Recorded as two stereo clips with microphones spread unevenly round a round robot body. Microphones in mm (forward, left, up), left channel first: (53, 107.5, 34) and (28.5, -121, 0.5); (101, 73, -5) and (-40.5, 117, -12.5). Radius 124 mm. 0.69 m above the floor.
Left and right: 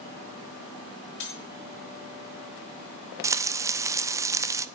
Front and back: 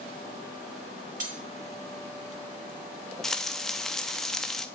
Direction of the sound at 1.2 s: 130° left.